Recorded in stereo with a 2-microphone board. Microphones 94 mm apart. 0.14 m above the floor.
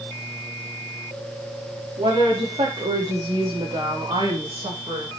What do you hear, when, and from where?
2.0 s a woman speaking: 80° right, 8.5 m; by 5.2 s 70° right (ahead or behind), 7.5 m